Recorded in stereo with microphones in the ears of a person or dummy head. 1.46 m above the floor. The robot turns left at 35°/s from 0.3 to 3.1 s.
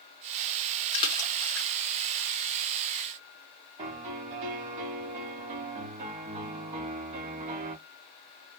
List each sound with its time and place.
0.9 s a splash: 30° left (ahead or behind), 1.1 m; by 1.7 s 5° left (ahead or behind), 1.1 m
3.8 s a piano: 40° right (ahead or behind), 1.9 m